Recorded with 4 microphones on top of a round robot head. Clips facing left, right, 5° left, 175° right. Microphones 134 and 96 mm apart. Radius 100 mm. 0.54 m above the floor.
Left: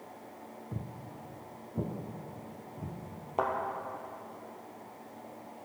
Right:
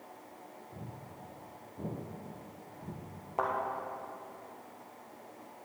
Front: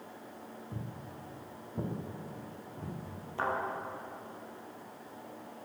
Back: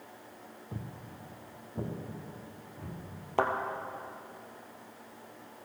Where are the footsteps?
115° left, 1.7 m; by 3.0 s 85° left, 3.5 m.